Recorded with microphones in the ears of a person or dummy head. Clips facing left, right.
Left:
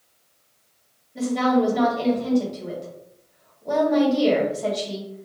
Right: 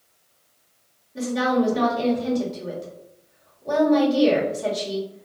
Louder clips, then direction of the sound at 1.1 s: Left 1 dB; 10° right (ahead or behind).